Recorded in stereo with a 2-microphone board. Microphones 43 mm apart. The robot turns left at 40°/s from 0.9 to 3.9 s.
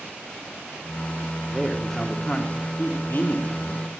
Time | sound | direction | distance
1.5 | a man speaking | 165° right | 1.2 m